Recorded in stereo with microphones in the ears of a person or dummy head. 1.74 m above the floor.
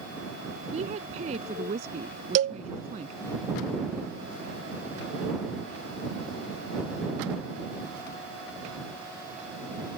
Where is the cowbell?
45° right (ahead or behind).